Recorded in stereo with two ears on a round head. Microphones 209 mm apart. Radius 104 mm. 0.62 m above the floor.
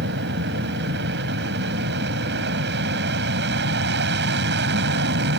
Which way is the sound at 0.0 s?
50° right (ahead or behind).